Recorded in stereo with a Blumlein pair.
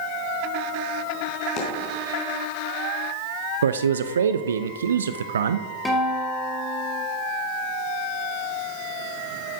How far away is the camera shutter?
No camera shutter in this recording.